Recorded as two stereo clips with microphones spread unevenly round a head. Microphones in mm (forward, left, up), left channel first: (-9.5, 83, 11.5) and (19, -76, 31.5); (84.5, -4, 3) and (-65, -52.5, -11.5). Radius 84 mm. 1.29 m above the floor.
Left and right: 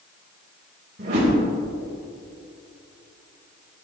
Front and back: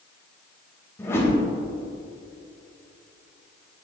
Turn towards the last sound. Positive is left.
turn(degrees=-55)